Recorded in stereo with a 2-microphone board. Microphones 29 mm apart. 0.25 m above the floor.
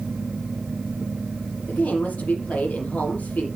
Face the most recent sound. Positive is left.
turn(degrees=65)  # may be behind; listen again after turning